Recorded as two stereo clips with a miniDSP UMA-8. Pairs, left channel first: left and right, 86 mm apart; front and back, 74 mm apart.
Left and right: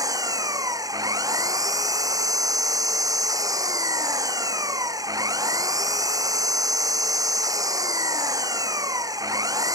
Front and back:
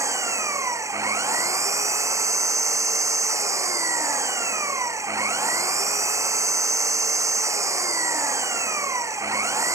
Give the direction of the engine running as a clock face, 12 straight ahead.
5 o'clock.